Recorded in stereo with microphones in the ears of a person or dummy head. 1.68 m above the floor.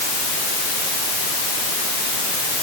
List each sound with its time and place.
Only background noise.